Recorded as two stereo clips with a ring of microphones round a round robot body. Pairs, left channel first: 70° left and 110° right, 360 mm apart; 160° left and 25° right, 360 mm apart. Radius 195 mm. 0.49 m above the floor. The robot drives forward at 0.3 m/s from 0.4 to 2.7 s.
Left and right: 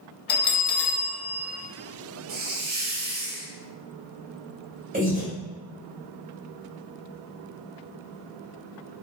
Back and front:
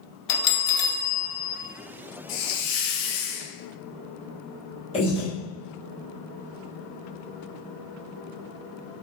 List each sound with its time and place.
0.3 s a bell: 125° left, 0.7 m; by 1.6 s 145° left, 0.9 m
2.3 s a hiss: 175° right, 0.5 m
4.9 s breathing: 145° right, 1.4 m